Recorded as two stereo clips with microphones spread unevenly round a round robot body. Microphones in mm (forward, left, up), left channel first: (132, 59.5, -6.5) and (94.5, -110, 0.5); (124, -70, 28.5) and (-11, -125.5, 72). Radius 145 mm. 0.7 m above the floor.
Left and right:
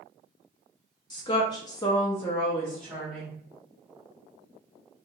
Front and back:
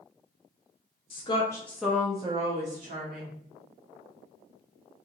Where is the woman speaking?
20° left, 0.7 m; by 3.4 s 170° left, 0.9 m.